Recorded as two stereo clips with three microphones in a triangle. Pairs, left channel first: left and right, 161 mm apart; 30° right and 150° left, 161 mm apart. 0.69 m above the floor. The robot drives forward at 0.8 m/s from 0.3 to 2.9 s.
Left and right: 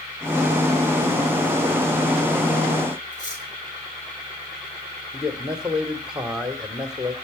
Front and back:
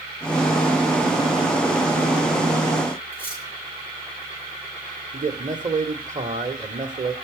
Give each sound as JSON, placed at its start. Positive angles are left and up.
{"t": 3.1, "sound": "cutlery clinking", "azimuth_deg": 50, "distance_m": 10.0}
{"t": 5.1, "sound": "a man speaking", "azimuth_deg": -175, "distance_m": 1.6}